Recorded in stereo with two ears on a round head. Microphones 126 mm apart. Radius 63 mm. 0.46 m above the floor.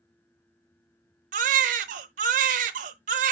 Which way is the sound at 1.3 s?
55° right (ahead or behind).